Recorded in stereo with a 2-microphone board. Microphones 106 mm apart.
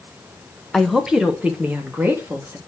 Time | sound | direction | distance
0.7 | a woman speaking | centre (ahead or behind) | 1.1 m